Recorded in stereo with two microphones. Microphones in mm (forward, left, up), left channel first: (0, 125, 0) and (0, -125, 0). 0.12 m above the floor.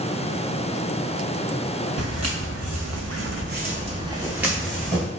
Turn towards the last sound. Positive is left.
turn(degrees=5)  # may be behind; listen again after turning